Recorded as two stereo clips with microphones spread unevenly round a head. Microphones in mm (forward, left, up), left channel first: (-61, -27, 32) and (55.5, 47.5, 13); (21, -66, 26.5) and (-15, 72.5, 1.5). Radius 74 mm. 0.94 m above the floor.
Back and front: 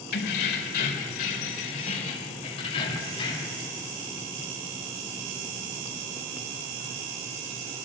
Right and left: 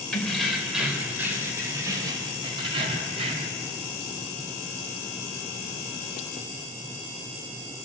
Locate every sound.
0.1 s keys jangling: 160° right, 3 m; by 3.6 s 155° left, 3.5 m